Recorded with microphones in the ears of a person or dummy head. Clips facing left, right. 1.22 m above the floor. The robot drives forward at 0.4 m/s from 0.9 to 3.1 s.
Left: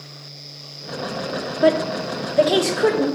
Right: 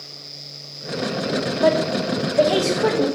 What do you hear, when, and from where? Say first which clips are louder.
1.6 s a woman speaking: left 2 dB; 25° left (ahead or behind), 0.7 m; by 3.0 s 15° left (ahead or behind), 1.2 m